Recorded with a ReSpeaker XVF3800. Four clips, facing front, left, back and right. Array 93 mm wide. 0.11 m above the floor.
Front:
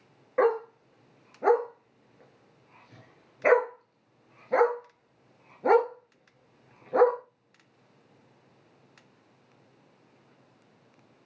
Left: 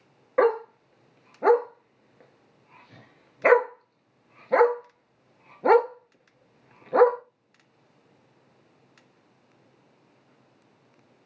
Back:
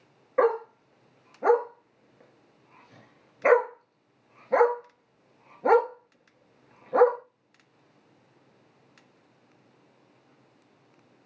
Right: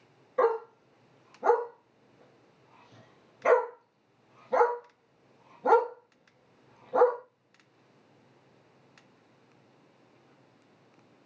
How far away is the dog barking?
About 0.7 m.